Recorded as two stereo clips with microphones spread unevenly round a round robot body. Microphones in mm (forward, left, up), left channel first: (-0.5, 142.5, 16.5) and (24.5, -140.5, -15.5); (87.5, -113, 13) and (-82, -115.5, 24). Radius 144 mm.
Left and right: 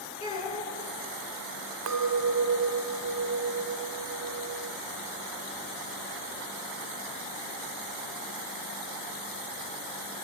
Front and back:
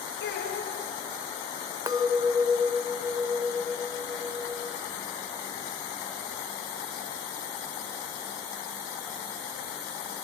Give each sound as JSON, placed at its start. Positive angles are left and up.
{"t": 0.2, "sound": "a child speaking", "azimuth_deg": 25, "distance_m": 4.5}
{"t": 1.9, "sound": "a clink", "azimuth_deg": -110, "distance_m": 1.3}